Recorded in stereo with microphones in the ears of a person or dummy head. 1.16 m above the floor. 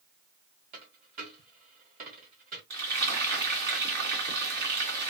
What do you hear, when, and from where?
0.7 s a dropped coin: 45° right (ahead or behind), 2 m
2.7 s frying: 55° right (ahead or behind), 2 m